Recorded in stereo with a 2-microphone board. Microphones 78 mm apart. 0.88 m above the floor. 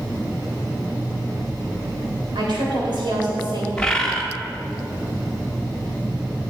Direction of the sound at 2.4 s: 75° right (ahead or behind).